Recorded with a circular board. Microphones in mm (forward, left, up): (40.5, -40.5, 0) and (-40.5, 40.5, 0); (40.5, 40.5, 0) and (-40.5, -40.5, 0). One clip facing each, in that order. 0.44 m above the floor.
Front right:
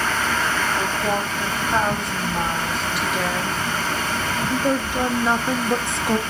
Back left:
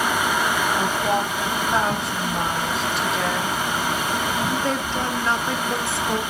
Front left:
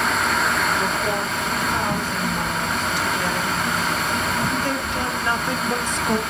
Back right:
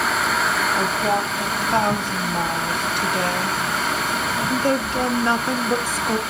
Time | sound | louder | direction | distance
0.8 | a woman speaking | back left 1 dB, back right 2 dB | 140° right | 3.5 m